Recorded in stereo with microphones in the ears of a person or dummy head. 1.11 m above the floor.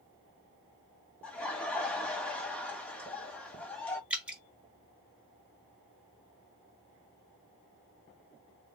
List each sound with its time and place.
1.2 s laughter: 5° left (ahead or behind), 1.6 m
4.1 s dripping: 10° right (ahead or behind), 1.1 m